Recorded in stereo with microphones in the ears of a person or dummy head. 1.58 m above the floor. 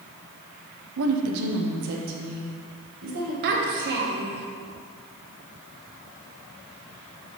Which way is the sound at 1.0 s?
80° right.